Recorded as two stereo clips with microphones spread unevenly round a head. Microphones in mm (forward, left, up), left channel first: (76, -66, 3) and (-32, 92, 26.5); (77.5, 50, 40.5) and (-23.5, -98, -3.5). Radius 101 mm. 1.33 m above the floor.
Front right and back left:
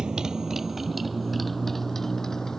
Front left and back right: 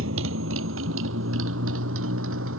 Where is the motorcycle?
150° right; by 2.6 s 145° right.